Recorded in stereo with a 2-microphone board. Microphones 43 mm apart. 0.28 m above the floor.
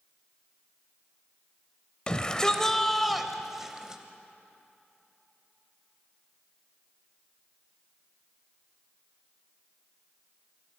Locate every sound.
2.1 s a shout: 25° left (ahead or behind), 1.2 m; by 4.0 s 20° right (ahead or behind), 1.3 m